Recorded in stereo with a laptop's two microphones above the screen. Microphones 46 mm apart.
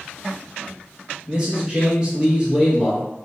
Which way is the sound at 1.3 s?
20° right (ahead or behind).